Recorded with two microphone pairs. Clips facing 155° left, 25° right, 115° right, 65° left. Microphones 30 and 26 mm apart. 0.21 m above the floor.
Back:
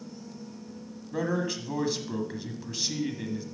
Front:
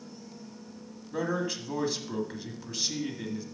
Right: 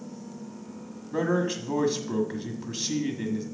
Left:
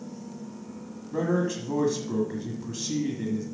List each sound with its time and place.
1.1 s a man speaking: 125° right, 1.5 m